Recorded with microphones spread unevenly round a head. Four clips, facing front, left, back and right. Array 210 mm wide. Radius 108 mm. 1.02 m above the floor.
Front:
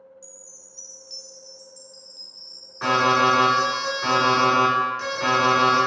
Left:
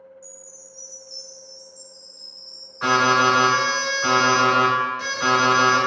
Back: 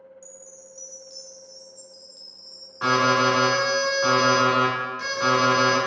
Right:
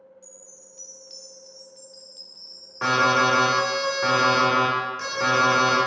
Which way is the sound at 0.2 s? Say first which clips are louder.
Left 4 dB, back 4 dB; 95° right.